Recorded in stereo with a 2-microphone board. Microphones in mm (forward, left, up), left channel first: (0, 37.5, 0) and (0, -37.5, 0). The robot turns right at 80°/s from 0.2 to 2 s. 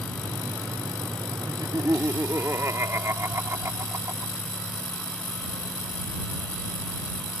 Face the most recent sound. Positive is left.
turn(degrees=-40)